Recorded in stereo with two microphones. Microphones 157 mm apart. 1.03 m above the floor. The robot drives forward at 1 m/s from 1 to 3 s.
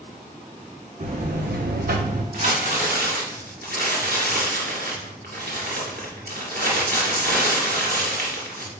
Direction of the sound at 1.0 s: 50° right (ahead or behind).